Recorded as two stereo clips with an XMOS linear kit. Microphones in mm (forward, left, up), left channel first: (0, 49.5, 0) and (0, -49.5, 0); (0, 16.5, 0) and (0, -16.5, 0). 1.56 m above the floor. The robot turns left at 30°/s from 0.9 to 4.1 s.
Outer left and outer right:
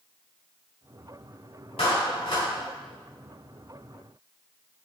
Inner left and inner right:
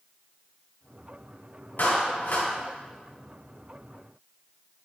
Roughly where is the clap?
Left.